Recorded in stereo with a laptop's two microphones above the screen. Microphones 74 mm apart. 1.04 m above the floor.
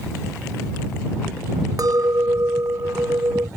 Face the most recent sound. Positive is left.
turn(degrees=-55)  # may be behind; listen again after turning